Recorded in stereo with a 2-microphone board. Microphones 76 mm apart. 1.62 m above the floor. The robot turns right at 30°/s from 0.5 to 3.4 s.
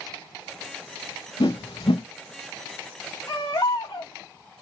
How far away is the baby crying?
About 2.5 m.